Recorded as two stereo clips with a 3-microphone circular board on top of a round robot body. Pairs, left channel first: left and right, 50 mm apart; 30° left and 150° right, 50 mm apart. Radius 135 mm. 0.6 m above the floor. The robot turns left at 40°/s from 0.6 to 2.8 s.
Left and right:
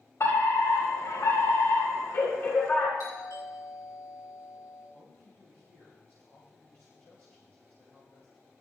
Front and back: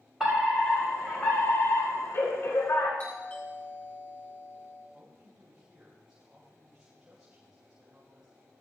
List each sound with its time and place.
0.2 s a fire alarm: 130° left, 6 m; by 2.9 s 40° left, 6 m
3.0 s a doorbell: 90° left, 7 m
4.9 s a man speaking: 135° left, 4 m